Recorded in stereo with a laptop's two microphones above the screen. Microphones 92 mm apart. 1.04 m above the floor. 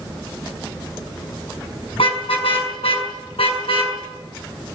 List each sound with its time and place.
1.9 s a car horn: 85° left, 6 m; by 4.0 s 90° left, 7.5 m